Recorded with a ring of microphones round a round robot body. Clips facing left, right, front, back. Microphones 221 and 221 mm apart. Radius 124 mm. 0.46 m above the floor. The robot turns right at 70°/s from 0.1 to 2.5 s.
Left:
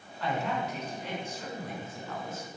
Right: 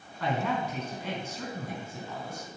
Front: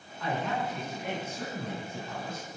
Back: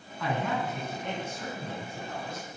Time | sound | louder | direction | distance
0.2 | a man speaking | right 2 dB, back 1 dB | 145° right | 4 m